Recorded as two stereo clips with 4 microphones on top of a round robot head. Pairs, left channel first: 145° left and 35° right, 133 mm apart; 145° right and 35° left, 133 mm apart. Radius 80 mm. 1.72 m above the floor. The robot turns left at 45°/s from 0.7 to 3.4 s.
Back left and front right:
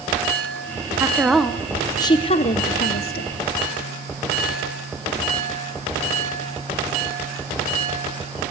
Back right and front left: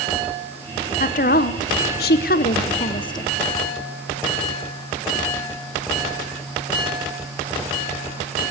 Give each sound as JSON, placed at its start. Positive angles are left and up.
{"t": 1.0, "sound": "a woman speaking", "azimuth_deg": -110, "distance_m": 1.1}